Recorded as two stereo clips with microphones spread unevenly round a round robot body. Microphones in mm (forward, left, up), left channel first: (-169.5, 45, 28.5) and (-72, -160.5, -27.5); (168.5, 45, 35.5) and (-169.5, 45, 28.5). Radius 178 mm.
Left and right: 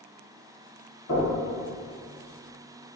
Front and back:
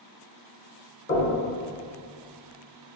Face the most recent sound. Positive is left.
turn(degrees=55)